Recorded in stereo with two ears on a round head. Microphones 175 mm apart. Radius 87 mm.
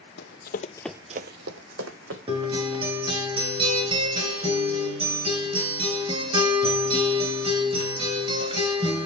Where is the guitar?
30° right (ahead or behind), 2.5 m.